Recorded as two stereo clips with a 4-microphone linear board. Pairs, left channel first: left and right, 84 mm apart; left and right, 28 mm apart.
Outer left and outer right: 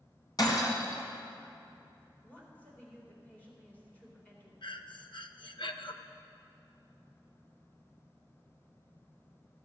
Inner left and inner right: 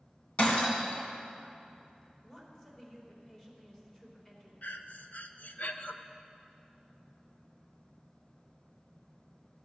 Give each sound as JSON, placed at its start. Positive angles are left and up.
{"t": 0.4, "sound": "breaking glass", "side_deg": 50, "distance_m": 1.9}
{"t": 2.2, "sound": "a woman speaking", "side_deg": 20, "distance_m": 2.5}
{"t": 4.6, "sound": "breathing", "side_deg": 70, "distance_m": 0.5}